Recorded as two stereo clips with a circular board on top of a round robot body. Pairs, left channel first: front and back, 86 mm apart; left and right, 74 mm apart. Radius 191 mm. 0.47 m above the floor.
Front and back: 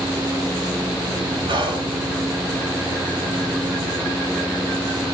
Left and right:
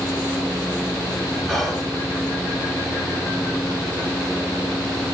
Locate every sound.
1.5 s whispering: 175° left, 2.5 m